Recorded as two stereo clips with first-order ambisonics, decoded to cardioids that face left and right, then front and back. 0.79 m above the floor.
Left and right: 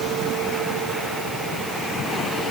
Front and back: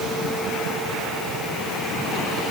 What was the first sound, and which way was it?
Only background noise.